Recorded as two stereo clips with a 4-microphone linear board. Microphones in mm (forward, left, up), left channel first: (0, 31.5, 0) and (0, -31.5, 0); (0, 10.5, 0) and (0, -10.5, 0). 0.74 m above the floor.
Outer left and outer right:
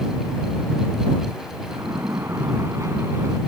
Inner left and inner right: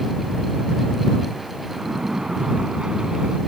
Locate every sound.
1.7 s a splash: 50° right (ahead or behind)